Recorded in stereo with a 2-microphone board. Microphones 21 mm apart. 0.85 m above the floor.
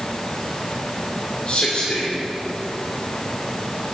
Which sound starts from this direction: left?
A man speaking, at 1.5 s.